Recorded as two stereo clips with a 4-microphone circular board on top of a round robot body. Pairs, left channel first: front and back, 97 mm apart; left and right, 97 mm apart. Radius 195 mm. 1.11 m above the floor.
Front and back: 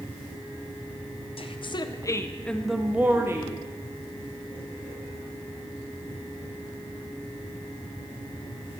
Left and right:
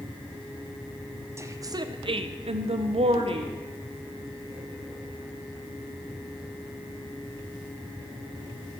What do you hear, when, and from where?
1.4 s a woman speaking: 30° right, 1.1 m; by 3.5 s 120° right, 1.3 m